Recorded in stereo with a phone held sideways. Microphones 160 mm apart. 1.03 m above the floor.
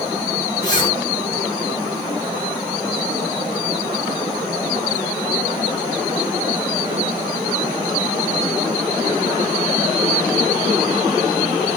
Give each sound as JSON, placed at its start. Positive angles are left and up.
{"t": 0.6, "sound": "a zipper", "side_deg": 30, "distance_m": 1.0}